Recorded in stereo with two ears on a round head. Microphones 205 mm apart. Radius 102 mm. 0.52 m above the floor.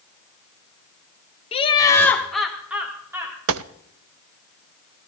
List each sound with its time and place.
1.5 s laughter: 25° left (ahead or behind), 1.0 m; by 3.4 s 15° right (ahead or behind), 2 m
3.5 s a gunshot: 65° right (ahead or behind), 0.5 m